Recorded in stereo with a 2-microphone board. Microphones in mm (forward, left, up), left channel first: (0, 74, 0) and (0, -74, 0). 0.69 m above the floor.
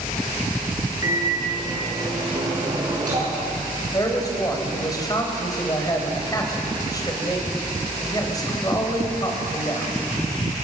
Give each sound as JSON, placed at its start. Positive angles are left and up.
{"t": 1.0, "sound": "a microwave", "side_deg": -30, "distance_m": 7.5}
{"t": 3.9, "sound": "a man speaking", "side_deg": 25, "distance_m": 3.5}